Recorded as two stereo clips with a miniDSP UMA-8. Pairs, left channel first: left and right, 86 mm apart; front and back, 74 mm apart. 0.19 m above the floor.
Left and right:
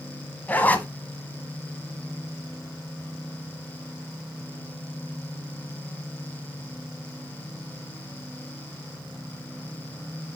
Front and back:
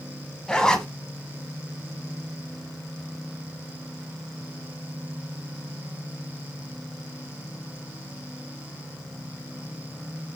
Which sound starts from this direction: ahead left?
A zipper, at 0.5 s.